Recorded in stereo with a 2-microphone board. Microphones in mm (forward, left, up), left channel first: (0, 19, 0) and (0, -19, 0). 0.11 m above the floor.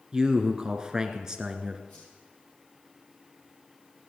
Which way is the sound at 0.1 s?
20° right (ahead or behind).